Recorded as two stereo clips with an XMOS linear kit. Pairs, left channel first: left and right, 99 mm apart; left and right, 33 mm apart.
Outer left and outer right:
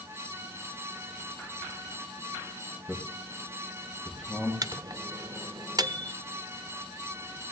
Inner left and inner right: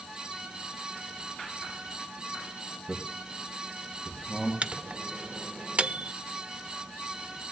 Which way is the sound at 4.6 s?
40° right (ahead or behind).